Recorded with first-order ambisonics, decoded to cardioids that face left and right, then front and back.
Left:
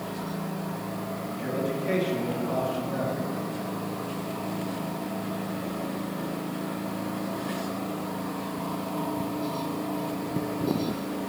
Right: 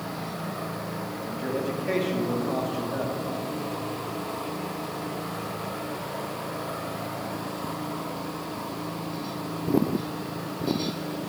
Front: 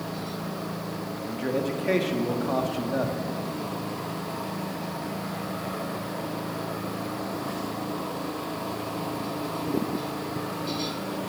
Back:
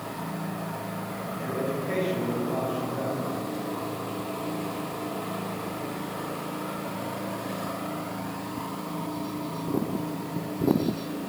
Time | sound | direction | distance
1.2 | a man speaking | 5° right | 1.7 m